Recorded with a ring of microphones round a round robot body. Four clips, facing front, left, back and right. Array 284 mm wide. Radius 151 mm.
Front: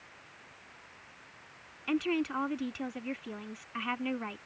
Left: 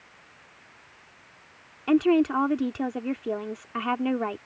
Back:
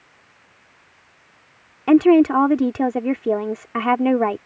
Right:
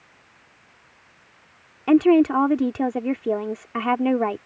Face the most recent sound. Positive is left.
turn(degrees=-155)